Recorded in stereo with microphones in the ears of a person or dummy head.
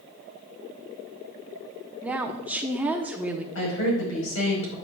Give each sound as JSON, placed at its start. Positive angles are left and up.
{"t": 2.0, "sound": "a woman speaking", "side_deg": -10, "distance_m": 0.8}
{"t": 3.5, "sound": "a woman speaking", "side_deg": 75, "distance_m": 4.5}